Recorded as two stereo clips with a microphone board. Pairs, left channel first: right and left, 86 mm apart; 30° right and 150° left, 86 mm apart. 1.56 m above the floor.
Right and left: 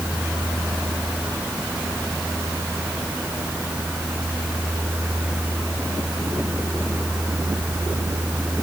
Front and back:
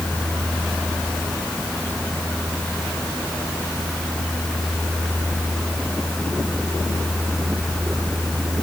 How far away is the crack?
No crack in this recording.